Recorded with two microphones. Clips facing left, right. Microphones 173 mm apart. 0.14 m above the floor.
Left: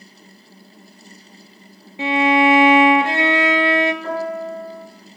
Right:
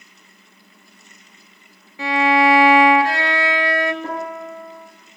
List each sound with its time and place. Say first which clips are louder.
2.0 s a violin: left 1 dB; 20° left (ahead or behind), 0.5 m
4.0 s a piano: left 4 dB; 35° right (ahead or behind), 2 m